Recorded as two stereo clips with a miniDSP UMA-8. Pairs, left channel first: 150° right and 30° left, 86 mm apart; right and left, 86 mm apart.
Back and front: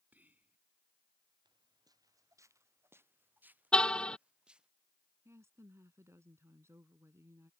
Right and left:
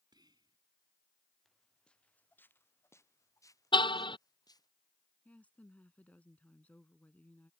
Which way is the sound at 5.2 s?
20° right.